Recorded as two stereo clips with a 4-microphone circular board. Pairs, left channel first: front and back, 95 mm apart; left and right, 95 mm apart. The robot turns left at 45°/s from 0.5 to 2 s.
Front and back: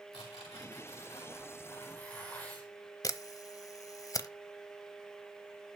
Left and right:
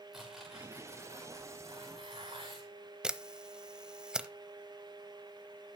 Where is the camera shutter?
15° right, 0.8 m.